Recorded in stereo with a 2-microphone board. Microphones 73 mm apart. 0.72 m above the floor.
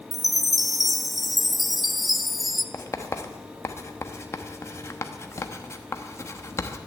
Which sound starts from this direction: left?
Writing, at 2.7 s.